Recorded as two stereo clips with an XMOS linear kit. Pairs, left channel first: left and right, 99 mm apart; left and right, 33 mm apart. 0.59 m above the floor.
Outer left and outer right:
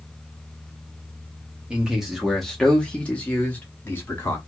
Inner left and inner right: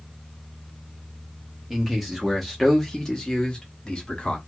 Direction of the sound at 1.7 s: 10° right (ahead or behind).